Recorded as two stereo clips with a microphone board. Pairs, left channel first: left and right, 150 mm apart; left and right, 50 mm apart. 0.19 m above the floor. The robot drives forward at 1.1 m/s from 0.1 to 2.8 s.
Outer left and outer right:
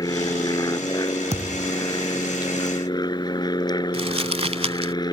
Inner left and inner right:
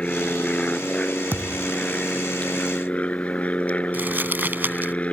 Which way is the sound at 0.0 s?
25° left (ahead or behind).